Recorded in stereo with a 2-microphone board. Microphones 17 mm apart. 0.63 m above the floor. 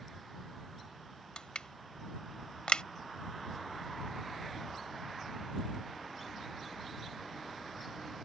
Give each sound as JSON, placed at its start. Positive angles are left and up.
{"t": 1.4, "sound": "crushing", "side_deg": 70}